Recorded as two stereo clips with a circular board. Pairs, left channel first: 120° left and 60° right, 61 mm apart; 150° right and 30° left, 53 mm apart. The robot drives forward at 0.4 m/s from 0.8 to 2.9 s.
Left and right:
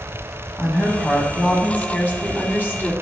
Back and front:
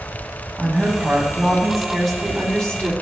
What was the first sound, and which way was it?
A woman speaking, 75° left.